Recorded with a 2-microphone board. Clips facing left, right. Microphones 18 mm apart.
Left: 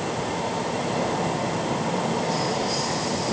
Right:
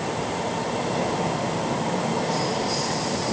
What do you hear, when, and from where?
Only background noise.